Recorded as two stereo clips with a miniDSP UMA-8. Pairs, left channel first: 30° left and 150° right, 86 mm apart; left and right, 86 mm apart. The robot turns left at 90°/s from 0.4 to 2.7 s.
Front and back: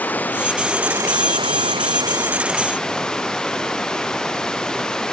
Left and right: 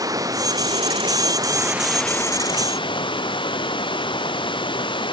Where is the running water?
40° right; by 5.1 s 110° left.